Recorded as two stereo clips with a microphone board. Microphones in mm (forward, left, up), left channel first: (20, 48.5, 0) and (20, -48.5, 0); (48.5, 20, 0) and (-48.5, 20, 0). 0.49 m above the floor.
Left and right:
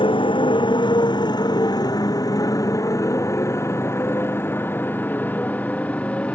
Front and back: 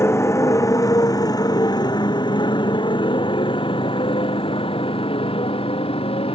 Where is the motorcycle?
60° left; by 6.3 s 15° left.